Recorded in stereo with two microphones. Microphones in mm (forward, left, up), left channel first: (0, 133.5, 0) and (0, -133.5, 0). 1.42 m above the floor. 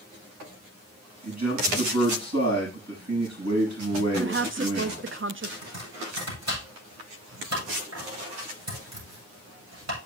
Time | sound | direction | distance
1.2 | a man speaking | 85° right | 7 m
4.2 | a woman speaking | 50° right (ahead or behind) | 0.5 m
5.6 | chopping | 80° right | 7.5 m